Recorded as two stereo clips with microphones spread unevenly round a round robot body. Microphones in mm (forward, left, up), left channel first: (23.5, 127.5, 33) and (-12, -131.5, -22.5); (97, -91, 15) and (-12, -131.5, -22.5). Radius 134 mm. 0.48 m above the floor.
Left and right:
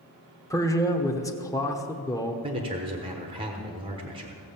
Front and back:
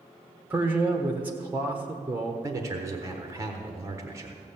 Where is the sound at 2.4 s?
145° right, 1.1 m.